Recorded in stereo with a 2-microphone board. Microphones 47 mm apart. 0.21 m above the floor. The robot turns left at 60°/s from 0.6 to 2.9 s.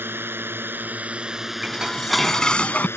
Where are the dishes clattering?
150° right; by 2.9 s 135° left.